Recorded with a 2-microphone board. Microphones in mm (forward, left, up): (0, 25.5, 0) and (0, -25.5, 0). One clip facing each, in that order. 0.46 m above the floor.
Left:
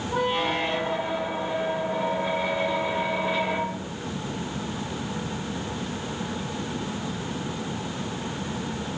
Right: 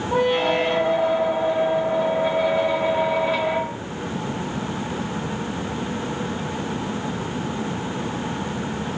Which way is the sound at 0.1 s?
75° right (ahead or behind).